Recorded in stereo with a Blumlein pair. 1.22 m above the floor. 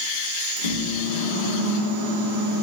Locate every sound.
0.6 s a microwave: 65° left, 1.0 m